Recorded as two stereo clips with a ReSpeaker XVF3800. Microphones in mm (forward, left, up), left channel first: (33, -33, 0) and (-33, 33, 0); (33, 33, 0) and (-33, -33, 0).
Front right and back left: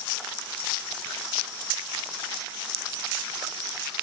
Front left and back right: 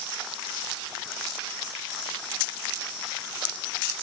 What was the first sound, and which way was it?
Only background noise.